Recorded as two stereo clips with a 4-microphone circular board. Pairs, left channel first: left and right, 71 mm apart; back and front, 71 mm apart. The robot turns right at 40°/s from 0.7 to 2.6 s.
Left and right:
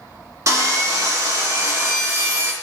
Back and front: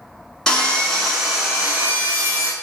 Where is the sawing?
105° right, 0.9 m; by 2.5 s 30° right, 0.9 m.